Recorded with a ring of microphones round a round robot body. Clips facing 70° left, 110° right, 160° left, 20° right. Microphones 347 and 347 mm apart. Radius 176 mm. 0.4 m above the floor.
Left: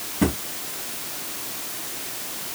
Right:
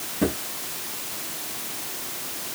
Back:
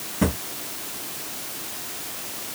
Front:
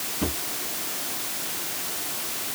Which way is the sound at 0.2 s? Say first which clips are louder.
Left 2 dB, back 6 dB; 140° left.